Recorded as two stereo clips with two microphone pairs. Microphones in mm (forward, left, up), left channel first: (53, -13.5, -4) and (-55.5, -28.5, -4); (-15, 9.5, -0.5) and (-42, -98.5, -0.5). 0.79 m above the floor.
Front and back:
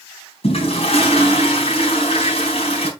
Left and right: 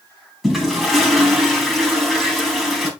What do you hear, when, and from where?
0.4 s a toilet flushing: 15° right, 3.5 m